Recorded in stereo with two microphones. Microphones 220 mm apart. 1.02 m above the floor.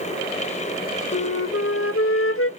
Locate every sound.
1.1 s a flute: 75° left (ahead or behind), 0.5 m